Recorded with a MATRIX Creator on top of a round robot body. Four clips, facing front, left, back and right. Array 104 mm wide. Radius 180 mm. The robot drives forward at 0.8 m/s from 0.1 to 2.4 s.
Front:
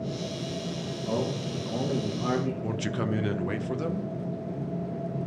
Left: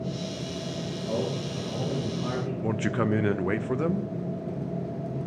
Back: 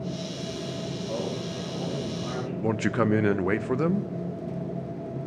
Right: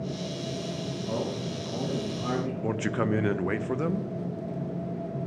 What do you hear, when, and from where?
1.1 s a man speaking: 10° right, 2 m; by 2.5 s 25° right, 1.1 m
2.6 s a man speaking: 175° left, 0.5 m